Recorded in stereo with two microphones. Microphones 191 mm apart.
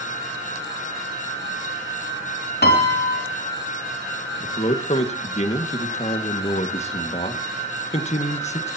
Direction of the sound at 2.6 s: 60° left (ahead or behind).